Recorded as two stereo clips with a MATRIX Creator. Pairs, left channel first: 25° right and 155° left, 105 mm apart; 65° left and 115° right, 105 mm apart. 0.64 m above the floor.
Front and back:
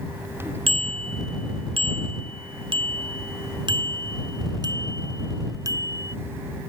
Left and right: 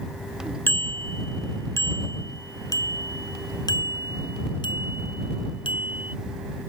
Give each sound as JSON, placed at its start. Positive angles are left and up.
{"t": 0.7, "sound": "a bicycle bell", "azimuth_deg": 135}